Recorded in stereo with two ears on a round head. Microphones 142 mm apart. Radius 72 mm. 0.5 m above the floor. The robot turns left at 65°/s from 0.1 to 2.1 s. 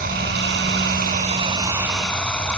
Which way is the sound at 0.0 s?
55° right.